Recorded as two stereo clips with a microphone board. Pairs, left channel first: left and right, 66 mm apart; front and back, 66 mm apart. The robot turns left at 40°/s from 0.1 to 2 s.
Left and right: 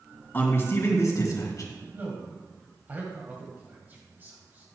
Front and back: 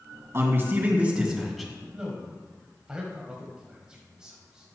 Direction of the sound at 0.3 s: 145° left.